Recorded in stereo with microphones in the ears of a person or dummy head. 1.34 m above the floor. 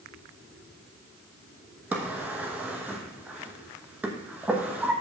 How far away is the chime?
No chime in this recording.